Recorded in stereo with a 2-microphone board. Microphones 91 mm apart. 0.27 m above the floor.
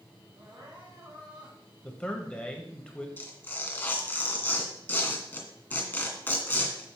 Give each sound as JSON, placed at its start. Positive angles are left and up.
{"t": 0.3, "sound": "crying", "side_deg": -60, "distance_m": 5.0}
{"t": 1.8, "sound": "a man speaking", "side_deg": 10, "distance_m": 1.2}
{"t": 3.2, "sound": "tearing paper", "side_deg": 20, "distance_m": 2.0}